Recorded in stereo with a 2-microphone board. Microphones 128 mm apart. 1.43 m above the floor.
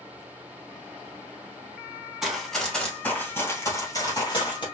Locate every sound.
2.2 s running footsteps: centre (ahead or behind), 1.6 m; by 4.7 s 40° left (ahead or behind), 2 m